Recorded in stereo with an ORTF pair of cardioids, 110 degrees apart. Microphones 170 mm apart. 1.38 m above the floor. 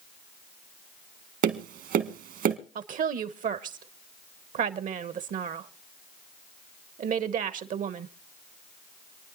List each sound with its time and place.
1.4 s tapping: 65° right, 1.9 m
2.8 s a woman speaking: 50° right, 1.0 m